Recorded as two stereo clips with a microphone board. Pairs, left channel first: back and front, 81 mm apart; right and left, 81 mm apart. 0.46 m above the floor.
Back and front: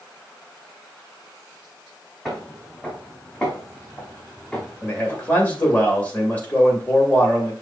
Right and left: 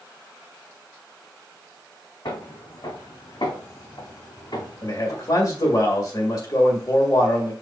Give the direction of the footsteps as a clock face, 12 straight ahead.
3 o'clock.